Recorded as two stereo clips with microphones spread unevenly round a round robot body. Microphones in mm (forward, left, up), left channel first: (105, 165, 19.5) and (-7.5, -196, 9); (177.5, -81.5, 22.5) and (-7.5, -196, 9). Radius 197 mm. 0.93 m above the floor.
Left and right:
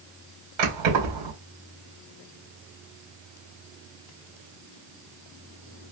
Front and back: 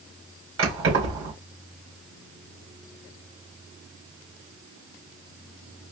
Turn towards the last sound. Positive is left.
turn(degrees=-130)